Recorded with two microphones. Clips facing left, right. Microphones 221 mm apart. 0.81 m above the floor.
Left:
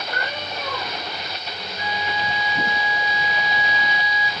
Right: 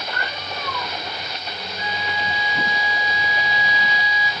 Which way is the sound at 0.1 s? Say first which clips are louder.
Left 1 dB; 65° left (ahead or behind).